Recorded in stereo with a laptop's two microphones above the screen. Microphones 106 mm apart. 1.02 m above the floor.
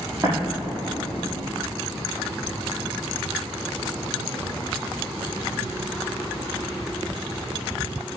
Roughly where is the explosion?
Right.